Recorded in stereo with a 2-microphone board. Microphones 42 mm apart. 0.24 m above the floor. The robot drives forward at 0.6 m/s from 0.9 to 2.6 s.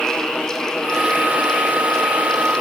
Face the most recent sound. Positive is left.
No sound to turn to.